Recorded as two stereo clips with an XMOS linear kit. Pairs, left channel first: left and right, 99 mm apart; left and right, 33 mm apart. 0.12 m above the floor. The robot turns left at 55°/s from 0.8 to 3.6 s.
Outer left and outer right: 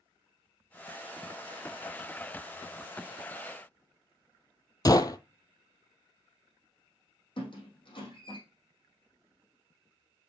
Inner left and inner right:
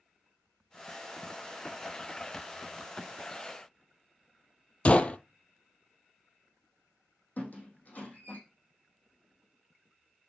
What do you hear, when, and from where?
4.8 s a gunshot: 40° left (ahead or behind), 0.7 m
7.4 s a squeak: 55° left (ahead or behind), 4 m